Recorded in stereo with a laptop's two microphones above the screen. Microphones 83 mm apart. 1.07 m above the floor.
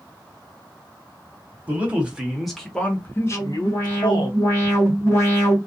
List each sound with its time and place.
1.7 s a man speaking: 20° right (ahead or behind), 1.0 m; by 4.3 s 70° left (ahead or behind), 0.8 m
3.3 s an alarm: 35° left (ahead or behind), 1.5 m